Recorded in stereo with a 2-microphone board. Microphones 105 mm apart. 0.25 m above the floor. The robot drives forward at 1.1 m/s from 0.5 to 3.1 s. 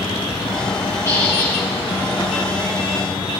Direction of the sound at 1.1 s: 30° left (ahead or behind).